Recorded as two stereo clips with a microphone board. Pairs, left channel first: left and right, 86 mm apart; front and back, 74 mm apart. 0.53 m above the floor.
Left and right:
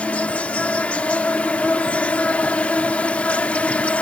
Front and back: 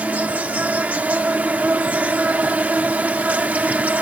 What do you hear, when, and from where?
0.0 s an insect: 140° left